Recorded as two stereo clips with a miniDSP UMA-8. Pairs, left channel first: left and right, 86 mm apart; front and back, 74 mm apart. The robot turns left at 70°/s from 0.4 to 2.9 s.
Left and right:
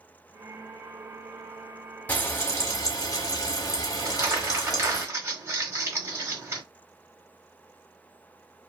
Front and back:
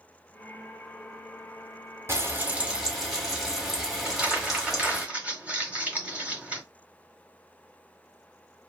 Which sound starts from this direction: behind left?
Frying, at 2.1 s.